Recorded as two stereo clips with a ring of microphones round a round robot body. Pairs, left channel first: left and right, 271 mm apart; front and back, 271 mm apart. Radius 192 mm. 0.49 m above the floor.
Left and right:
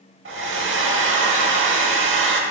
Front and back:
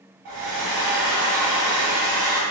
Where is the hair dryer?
140° right, 0.8 m.